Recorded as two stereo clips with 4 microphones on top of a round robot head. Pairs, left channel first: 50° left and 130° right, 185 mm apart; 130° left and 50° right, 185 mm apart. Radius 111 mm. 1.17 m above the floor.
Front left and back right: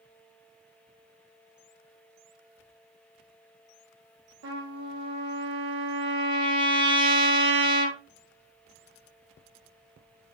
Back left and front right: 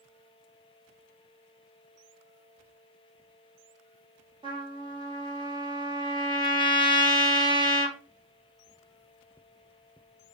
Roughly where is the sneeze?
I don't hear a sneeze.